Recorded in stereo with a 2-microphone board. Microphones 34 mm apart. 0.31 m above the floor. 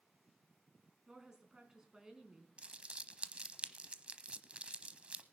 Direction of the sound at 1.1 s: 15° right (ahead or behind).